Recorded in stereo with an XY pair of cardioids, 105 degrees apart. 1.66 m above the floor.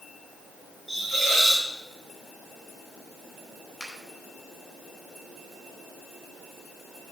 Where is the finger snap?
10° left, 5 m.